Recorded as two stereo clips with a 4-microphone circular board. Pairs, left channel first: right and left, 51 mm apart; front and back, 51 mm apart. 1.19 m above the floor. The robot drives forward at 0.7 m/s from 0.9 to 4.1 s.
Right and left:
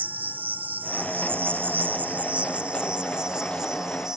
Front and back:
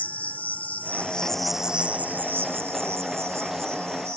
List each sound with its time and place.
0.0 s an insect: 50° left; by 4.2 s 165° left